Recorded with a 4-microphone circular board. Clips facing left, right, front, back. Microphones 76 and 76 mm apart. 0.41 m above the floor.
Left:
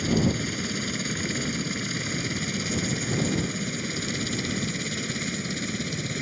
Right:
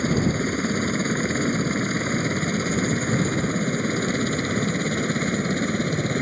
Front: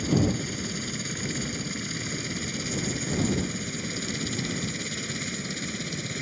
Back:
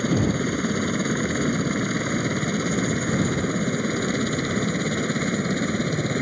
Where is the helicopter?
140° right; by 6.2 s 135° right.